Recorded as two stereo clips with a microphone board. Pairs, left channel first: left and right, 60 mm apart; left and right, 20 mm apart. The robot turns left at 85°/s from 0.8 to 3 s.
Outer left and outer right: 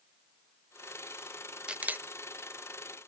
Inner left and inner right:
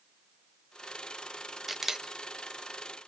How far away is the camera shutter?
About 0.7 m.